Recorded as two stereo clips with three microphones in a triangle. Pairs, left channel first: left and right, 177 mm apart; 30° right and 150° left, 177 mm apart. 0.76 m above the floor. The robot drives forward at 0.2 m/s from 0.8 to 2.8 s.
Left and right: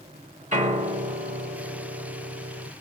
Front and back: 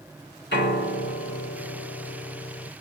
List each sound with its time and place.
0.5 s a piano: 40° right, 1.2 m; by 2.7 s 60° right, 0.9 m